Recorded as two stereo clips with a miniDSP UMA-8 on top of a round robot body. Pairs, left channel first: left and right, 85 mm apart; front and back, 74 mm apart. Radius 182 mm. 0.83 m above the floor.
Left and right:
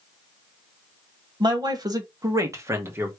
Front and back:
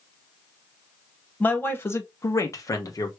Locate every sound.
1.4 s a man speaking: 65° right, 1.7 m; by 3.1 s 30° right, 1.9 m